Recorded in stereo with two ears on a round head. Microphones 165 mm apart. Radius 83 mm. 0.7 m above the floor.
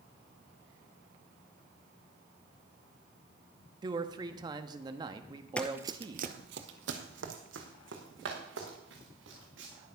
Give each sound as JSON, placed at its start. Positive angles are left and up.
{"t": 3.8, "sound": "a man speaking", "side_deg": -20, "distance_m": 0.8}
{"t": 5.6, "sound": "running footsteps", "side_deg": 5, "distance_m": 1.0}